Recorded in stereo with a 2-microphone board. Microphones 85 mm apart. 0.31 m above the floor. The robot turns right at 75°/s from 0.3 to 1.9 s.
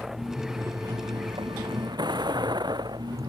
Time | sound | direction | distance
0.0 | a vehicle | 175° right | ?